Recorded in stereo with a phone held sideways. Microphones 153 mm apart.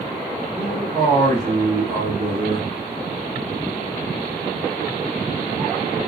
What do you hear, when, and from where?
0.6 s a man speaking: 50° right (ahead or behind), 2.5 m; by 2.7 s 55° right (ahead or behind), 1.0 m